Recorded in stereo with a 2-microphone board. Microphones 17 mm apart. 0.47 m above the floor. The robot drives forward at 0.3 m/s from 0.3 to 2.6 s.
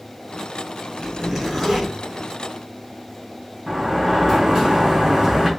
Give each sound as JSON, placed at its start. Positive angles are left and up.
{"t": 1.0, "sound": "a zipper", "side_deg": 0, "distance_m": 2.0}
{"t": 3.7, "sound": "a sliding door", "side_deg": -25, "distance_m": 3.0}